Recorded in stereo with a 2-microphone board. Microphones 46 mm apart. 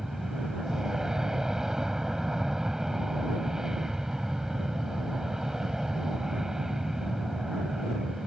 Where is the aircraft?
10° right (ahead or behind).